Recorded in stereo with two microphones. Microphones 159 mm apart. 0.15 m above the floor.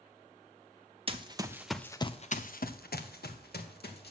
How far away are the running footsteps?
About 1.1 m.